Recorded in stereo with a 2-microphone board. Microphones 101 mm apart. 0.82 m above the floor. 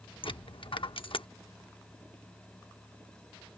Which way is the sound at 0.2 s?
65° left (ahead or behind).